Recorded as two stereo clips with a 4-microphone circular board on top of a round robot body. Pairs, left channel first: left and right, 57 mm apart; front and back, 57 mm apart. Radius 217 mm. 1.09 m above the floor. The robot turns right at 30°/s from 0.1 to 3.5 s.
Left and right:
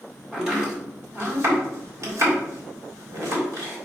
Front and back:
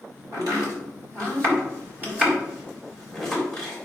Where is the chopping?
175° right, 3.5 m; by 3.9 s 75° right, 3.5 m.